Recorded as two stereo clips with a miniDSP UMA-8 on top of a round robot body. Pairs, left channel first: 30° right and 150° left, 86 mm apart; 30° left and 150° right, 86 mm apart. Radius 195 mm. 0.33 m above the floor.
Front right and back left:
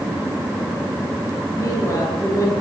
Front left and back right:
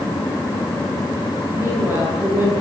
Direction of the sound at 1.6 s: 85° right.